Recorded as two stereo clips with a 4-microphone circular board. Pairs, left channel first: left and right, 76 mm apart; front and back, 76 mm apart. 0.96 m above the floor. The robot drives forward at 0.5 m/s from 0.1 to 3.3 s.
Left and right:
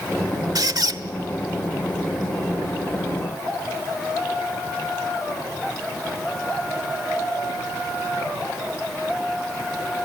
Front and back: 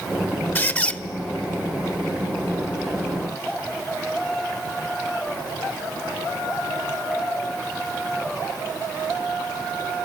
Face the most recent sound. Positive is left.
turn(degrees=-130)